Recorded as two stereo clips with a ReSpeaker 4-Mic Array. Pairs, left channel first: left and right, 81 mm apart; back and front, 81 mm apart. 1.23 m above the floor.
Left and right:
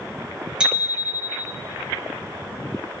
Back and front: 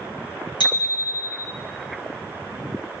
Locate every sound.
0.6 s a bicycle bell: 170° right, 5 m